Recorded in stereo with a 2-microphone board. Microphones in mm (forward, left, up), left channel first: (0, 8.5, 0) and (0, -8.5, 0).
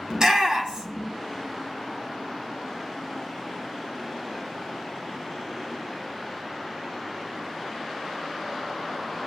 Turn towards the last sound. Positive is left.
turn(degrees=-40)  # may be behind; listen again after turning